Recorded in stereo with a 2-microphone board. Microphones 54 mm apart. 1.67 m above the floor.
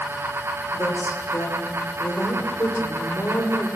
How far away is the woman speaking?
About 5.5 m.